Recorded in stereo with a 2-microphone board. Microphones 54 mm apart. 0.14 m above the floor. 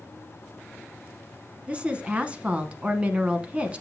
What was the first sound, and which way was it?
A woman speaking, 20° right (ahead or behind).